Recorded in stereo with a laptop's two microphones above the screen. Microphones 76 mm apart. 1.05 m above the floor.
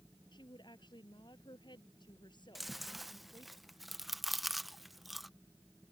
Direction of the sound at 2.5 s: Centre (ahead or behind).